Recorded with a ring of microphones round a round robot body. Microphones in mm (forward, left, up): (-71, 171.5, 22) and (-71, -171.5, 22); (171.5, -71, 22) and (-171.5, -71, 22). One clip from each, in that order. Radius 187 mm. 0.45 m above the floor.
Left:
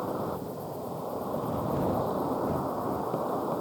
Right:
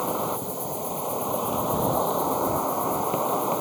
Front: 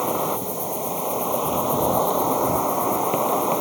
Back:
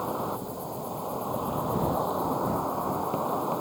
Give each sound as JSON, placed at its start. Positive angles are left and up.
{"t": 0.0, "sound": "an insect", "azimuth_deg": -35}